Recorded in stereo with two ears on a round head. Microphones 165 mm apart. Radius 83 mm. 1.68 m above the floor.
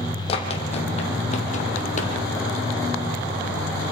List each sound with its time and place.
0.3 s running footsteps: 35° left (ahead or behind), 4 m; by 2.1 s 45° left (ahead or behind), 3.5 m